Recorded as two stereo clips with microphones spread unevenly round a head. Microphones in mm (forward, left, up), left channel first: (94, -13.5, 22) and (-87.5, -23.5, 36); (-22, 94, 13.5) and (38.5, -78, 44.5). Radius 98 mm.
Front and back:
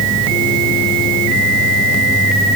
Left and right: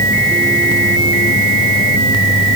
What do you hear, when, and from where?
Only background noise.